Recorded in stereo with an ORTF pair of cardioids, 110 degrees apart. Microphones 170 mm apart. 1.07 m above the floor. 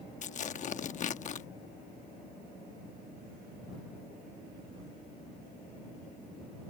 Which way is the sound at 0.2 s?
45° left.